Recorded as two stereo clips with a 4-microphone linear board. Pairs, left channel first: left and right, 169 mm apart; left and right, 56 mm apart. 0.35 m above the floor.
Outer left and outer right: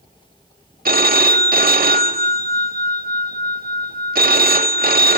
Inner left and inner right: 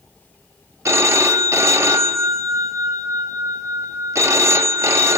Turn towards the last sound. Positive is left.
turn(degrees=-60)  # may be behind; listen again after turning